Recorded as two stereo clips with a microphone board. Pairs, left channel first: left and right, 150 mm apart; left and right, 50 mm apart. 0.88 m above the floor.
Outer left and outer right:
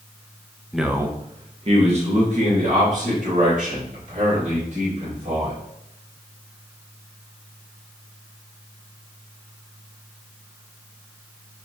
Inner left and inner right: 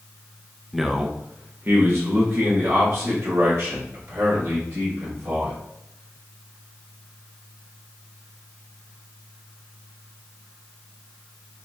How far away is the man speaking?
About 0.5 m.